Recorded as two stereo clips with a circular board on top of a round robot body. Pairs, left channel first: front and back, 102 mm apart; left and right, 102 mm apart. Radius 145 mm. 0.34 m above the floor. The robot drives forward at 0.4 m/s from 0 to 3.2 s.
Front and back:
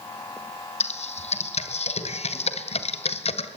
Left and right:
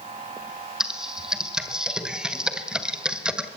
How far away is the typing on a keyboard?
About 3 m.